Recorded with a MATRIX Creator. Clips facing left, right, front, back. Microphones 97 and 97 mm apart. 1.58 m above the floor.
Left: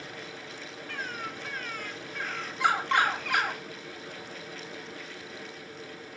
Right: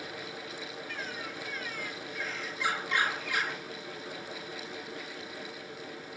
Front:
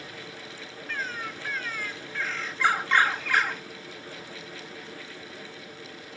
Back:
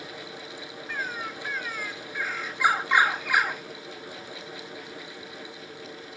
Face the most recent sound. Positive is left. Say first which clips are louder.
# left 6 dB, back 1 dB
turn(degrees=105)